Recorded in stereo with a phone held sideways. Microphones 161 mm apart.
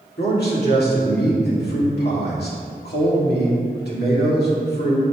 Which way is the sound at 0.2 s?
80° left.